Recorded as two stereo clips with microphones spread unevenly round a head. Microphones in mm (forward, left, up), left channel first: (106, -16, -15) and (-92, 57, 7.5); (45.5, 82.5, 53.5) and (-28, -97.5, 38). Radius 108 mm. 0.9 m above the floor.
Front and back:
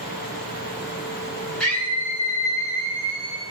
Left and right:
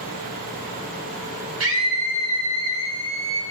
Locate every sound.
1.6 s a scream: 105° right, 5 m; by 3.4 s 85° right, 5.5 m